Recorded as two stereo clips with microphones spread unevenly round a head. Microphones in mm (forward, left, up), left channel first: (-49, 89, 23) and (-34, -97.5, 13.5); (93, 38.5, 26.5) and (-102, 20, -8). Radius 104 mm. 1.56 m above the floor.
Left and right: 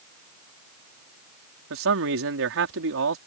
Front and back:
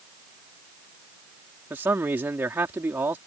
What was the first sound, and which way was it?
A man speaking, 90° right.